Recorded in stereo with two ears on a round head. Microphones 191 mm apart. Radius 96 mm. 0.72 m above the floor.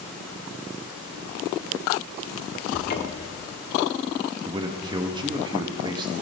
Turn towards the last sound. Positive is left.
turn(degrees=-20)  # may be behind; listen again after turning